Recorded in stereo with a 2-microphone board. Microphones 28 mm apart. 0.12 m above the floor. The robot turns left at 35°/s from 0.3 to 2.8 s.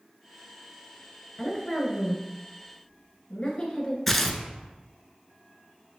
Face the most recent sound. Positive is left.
turn(degrees=5)  # may be behind; listen again after turning